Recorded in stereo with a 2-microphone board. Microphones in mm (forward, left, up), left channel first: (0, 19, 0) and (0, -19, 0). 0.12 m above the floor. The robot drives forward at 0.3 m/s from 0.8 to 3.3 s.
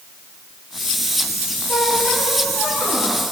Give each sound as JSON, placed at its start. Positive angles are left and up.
{"t": 1.7, "sound": "a squeak", "side_deg": 60, "distance_m": 8.5}